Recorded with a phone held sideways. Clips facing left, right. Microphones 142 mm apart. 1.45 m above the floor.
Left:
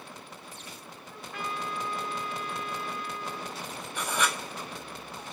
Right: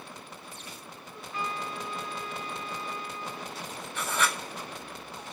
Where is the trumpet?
65° left (ahead or behind), 6.5 m.